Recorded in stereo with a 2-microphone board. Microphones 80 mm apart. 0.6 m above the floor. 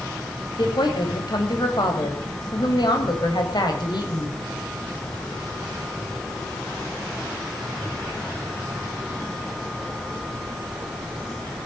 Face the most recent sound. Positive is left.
turn(degrees=65)  # may be behind; listen again after turning